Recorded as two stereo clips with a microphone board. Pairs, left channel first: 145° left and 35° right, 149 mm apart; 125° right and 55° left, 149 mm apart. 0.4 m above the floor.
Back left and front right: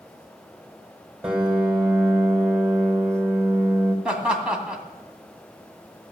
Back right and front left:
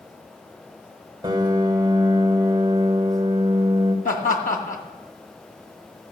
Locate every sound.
1.2 s a piano: 45° left, 1.6 m
4.0 s laughter: 120° right, 2 m